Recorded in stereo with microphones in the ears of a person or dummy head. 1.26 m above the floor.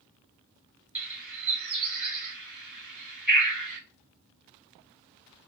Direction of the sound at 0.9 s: 5° right (ahead or behind).